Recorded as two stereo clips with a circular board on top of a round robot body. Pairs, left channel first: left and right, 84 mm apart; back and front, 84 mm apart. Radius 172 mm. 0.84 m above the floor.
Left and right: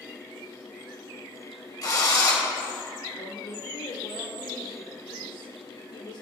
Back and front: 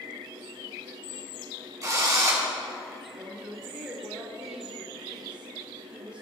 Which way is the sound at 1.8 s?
50° left.